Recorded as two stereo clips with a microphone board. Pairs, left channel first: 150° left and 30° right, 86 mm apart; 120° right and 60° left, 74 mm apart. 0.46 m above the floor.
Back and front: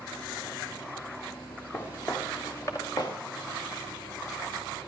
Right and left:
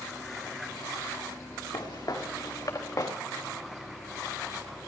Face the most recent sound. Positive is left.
turn(degrees=-165)